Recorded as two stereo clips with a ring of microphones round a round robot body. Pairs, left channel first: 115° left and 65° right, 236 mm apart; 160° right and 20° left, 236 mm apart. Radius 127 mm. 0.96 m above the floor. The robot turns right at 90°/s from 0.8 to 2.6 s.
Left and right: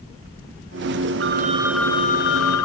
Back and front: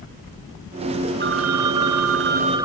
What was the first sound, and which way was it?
A phone ringing, 30° right.